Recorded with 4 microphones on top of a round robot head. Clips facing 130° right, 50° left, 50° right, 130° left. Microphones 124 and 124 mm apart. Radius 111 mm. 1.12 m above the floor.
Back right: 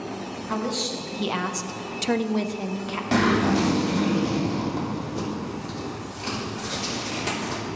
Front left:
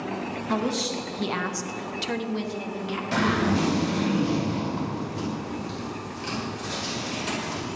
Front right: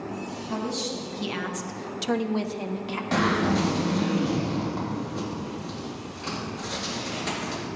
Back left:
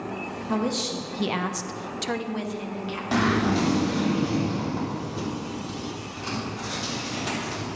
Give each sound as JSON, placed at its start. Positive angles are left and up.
{"t": 0.5, "sound": "a woman speaking", "azimuth_deg": 125, "distance_m": 1.2}
{"t": 3.1, "sound": "a zipper", "azimuth_deg": -145, "distance_m": 3.5}